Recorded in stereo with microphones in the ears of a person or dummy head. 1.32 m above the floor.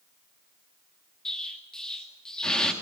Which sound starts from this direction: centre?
An explosion, at 1.2 s.